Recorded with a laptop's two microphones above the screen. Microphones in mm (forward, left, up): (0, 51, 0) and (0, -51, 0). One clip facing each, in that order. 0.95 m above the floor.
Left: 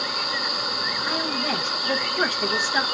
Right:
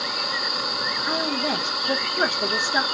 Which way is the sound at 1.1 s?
15° right (ahead or behind).